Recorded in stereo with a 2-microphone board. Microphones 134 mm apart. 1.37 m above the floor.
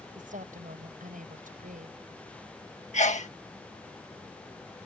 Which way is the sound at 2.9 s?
60° left (ahead or behind).